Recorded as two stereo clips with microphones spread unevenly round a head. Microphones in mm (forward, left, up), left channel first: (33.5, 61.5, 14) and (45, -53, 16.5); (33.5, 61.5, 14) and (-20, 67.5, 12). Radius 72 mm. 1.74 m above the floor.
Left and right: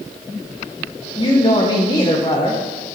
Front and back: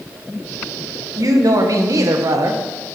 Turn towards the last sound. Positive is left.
turn(degrees=160)